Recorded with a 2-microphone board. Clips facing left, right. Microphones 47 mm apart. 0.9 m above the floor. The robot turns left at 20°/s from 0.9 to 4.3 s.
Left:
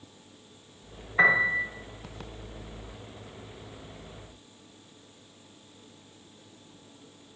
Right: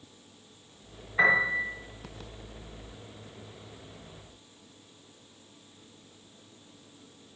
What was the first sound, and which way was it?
A piano, 20° left (ahead or behind).